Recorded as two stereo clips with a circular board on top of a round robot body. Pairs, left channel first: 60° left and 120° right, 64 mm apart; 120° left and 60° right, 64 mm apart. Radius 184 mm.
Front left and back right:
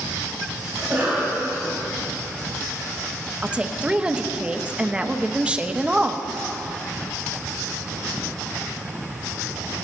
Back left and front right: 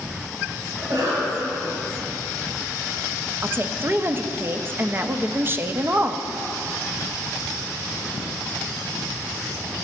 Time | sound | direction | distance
0.8 | a cough | 50° right | 3 m
3.4 | a woman speaking | 60° right | 0.7 m